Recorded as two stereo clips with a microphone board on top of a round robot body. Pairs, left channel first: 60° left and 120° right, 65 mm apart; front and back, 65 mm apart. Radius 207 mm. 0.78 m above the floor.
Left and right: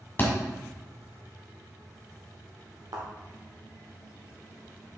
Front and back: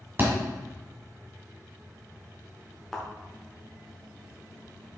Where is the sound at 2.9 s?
85° right, 1.0 m.